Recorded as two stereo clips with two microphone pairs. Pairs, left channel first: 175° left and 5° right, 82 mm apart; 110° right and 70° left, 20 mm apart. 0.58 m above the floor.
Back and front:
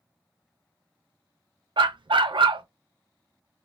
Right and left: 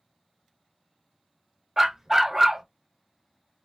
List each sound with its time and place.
1.8 s a dog barking: straight ahead, 0.5 m